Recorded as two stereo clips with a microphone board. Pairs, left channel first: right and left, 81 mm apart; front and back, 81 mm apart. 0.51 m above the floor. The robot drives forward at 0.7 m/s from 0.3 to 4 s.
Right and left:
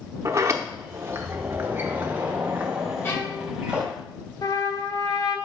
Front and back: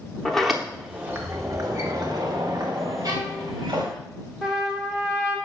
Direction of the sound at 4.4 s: 100° right.